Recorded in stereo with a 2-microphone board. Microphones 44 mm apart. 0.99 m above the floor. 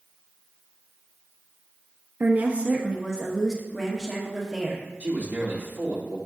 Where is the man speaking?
40° right (ahead or behind), 2 m.